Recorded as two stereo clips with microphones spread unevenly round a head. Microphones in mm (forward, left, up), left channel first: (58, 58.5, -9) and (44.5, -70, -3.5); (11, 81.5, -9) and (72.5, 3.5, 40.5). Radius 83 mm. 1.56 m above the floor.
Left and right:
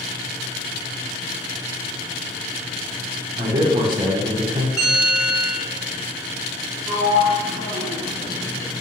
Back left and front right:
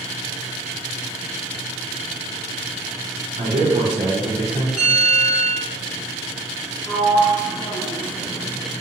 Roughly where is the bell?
Ahead.